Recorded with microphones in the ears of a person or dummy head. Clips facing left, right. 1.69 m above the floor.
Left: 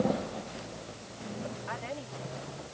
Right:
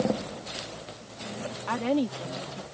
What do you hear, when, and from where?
1.7 s a woman speaking: 80° right